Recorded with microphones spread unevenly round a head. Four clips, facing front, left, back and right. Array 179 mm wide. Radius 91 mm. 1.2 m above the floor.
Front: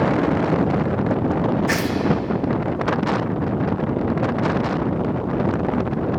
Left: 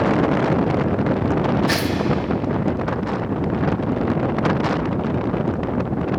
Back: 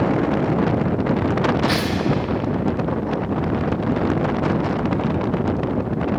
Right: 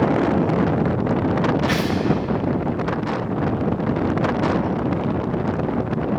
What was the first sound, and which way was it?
Tearing paper, 55° left.